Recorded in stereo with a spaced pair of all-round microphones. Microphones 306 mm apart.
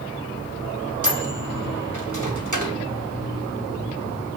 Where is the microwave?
75° right (ahead or behind), 1.7 m.